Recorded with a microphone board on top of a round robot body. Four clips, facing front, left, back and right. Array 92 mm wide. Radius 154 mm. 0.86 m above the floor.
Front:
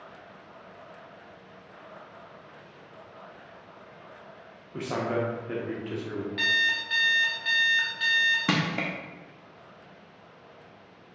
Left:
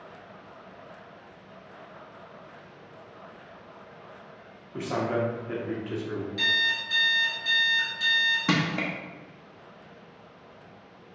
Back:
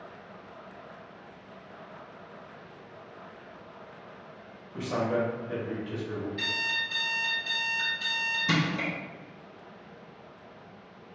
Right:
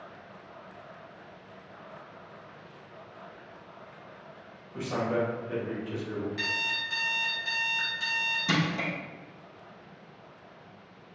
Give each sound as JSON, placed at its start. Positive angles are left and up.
{"t": 4.7, "sound": "a man speaking", "azimuth_deg": 40, "distance_m": 1.1}
{"t": 6.4, "sound": "an alarm clock", "azimuth_deg": -20, "distance_m": 1.0}
{"t": 8.5, "sound": "crushing", "azimuth_deg": 35, "distance_m": 0.7}